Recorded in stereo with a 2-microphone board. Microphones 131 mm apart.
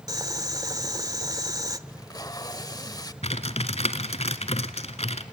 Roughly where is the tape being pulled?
Left.